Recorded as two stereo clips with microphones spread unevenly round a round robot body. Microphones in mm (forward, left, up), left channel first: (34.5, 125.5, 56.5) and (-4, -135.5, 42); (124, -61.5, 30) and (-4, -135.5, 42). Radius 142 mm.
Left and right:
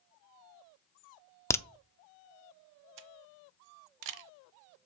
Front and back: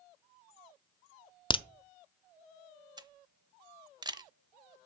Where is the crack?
Straight ahead, 0.6 m.